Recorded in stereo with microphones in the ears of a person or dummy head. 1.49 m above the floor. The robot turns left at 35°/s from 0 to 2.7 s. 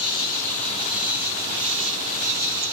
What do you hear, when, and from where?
0.0 s an insect: 30° left, 2.5 m; by 2.7 s 65° right, 2.5 m